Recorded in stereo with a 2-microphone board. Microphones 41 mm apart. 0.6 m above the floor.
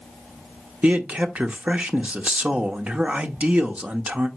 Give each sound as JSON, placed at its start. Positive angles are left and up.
{"t": 0.8, "sound": "a man speaking", "side_deg": -35, "distance_m": 1.0}